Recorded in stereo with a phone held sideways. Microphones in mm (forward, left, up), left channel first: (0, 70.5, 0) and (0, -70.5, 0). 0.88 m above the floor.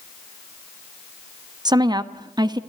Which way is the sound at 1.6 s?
30° right (ahead or behind).